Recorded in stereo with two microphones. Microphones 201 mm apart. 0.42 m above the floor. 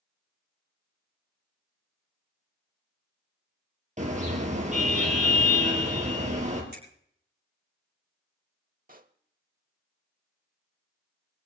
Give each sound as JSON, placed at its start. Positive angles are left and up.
{"t": 4.0, "sound": "a car horn", "side_deg": -35, "distance_m": 4.0}
{"t": 6.7, "sound": "a finger snap", "side_deg": -55, "distance_m": 9.0}
{"t": 8.9, "sound": "a pop", "side_deg": -45, "distance_m": 0.8}